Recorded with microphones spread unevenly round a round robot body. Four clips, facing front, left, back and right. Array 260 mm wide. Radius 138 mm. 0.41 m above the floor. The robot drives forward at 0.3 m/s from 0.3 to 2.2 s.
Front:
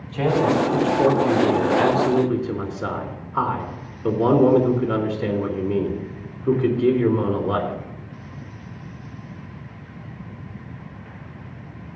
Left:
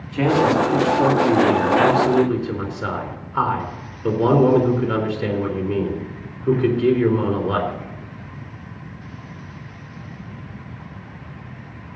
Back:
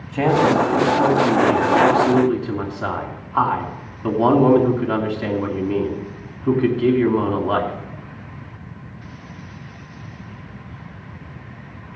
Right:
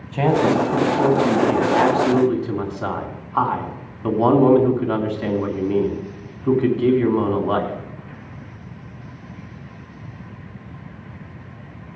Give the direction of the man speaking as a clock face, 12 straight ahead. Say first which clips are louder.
Even, back 3 dB; 5 o'clock.